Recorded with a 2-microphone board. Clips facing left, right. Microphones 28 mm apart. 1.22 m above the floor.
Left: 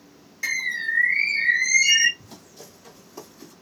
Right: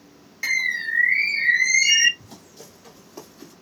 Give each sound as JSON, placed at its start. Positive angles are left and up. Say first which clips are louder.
{"t": 0.4, "sound": "a bird", "louder": "right 2 dB", "side_deg": -20, "distance_m": 0.9}
{"t": 2.2, "sound": "running footsteps", "louder": "even", "side_deg": -5, "distance_m": 1.8}